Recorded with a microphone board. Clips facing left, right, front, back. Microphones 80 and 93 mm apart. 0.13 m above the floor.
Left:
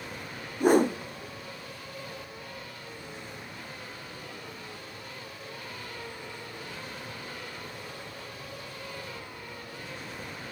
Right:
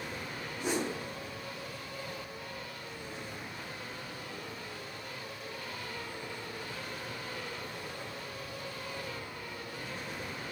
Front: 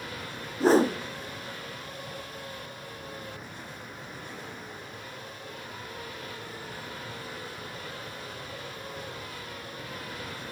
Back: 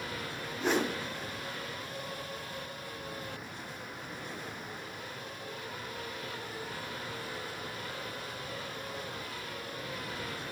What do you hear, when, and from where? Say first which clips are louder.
0.6 s a whoosh: left 12 dB, front 9 dB; 55° left, 1.1 m